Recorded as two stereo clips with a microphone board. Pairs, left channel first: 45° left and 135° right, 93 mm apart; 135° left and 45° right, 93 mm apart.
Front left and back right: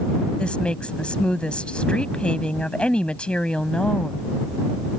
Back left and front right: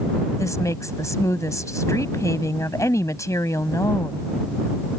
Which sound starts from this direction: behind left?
A woman speaking, at 0.4 s.